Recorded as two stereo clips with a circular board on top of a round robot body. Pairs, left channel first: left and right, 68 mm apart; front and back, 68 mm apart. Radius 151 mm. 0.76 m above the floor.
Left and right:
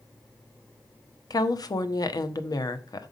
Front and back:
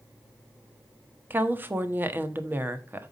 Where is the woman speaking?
120° left, 1.4 m.